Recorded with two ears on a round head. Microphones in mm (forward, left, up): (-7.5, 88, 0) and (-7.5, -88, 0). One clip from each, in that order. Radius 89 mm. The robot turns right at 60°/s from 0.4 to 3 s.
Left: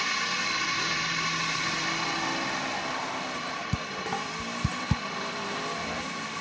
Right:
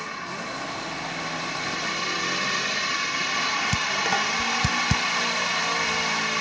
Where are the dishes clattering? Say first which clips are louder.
Right 9 dB; 70° right (ahead or behind).